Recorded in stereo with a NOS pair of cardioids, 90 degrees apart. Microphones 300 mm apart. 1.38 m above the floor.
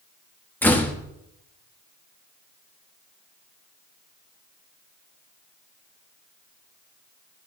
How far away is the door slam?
About 1.5 m.